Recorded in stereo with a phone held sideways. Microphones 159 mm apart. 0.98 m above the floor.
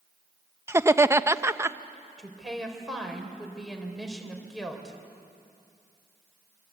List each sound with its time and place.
0.7 s laughter: 15° right (ahead or behind), 0.7 m
2.2 s a woman speaking: centre (ahead or behind), 4 m